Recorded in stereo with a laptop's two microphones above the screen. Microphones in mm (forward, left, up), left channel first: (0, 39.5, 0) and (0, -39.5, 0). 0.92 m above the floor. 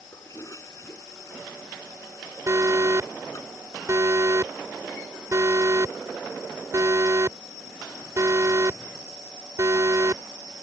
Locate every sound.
0.1 s a toilet flushing: 40° left (ahead or behind)
2.5 s an alarm: 40° right (ahead or behind)